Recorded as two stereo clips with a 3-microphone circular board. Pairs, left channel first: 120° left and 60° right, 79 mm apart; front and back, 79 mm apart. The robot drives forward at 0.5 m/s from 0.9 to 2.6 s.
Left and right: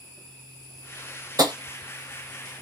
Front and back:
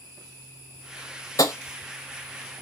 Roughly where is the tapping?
Ahead right.